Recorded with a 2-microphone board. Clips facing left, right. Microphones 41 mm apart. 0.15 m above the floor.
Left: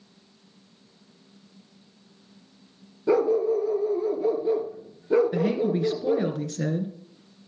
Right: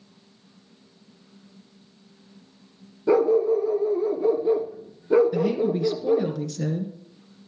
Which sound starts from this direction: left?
A woman speaking, at 5.3 s.